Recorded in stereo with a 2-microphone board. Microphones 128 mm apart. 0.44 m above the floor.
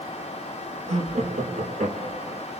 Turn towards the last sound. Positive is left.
turn(degrees=-75)  # may be behind; listen again after turning